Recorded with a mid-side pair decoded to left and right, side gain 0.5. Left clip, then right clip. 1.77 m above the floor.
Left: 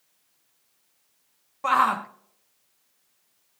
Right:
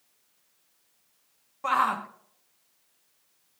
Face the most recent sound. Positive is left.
turn(degrees=20)